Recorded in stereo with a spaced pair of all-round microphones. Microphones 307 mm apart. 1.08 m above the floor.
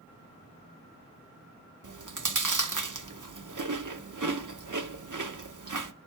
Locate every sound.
1.8 s chewing: 80° right, 0.8 m